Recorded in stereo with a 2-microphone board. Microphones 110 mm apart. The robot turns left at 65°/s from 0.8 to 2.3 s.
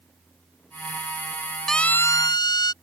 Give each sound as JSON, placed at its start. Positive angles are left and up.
{"t": 1.7, "sound": "a siren", "side_deg": 0}